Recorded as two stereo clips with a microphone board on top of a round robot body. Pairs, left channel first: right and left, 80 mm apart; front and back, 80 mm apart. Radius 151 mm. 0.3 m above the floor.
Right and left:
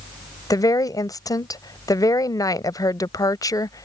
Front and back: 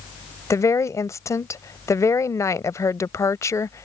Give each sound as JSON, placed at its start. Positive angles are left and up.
{"t": 0.5, "sound": "a woman speaking", "azimuth_deg": -50}